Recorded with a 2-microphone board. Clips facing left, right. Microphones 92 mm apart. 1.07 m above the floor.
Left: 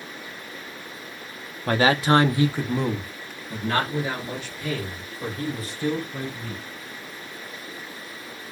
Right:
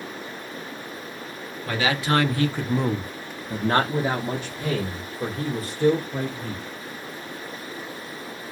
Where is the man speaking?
45° left (ahead or behind), 0.8 m; by 6.6 s 55° right (ahead or behind), 2.5 m.